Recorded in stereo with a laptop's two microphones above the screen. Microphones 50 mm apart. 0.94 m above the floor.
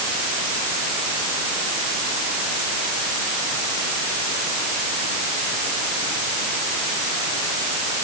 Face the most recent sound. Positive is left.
No sound to turn to.